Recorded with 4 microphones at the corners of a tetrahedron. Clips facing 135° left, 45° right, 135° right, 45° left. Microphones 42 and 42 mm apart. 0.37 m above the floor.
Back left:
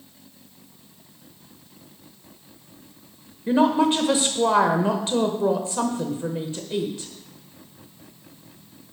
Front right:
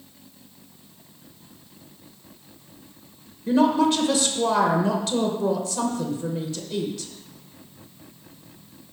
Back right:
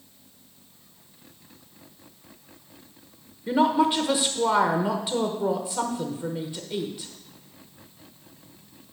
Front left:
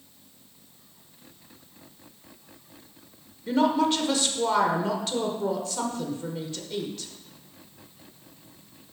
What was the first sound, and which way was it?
A woman speaking, 165° left.